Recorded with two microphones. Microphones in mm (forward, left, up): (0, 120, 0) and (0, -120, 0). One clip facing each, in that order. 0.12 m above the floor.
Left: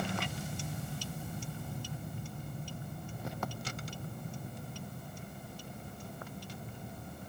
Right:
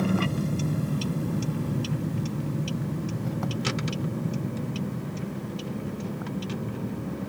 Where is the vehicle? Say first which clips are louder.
Right 13 dB; 60° right (ahead or behind); by 7.3 s 90° right.